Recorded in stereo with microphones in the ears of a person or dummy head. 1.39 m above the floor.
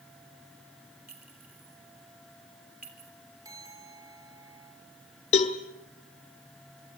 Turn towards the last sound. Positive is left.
turn(degrees=40)  # may be behind; listen again after turning